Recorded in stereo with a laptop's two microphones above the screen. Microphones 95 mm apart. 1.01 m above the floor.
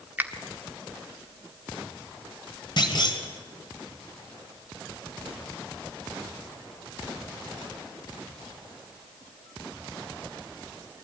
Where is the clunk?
50° left (ahead or behind), 2.5 m.